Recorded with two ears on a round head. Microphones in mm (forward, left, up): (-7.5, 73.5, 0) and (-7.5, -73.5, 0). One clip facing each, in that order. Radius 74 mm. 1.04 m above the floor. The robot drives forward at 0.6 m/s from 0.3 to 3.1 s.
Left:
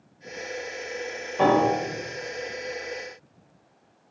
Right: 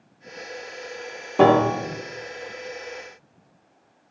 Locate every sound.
1.4 s a piano: 65° right (ahead or behind), 0.8 m; by 2.0 s 50° right (ahead or behind), 1.0 m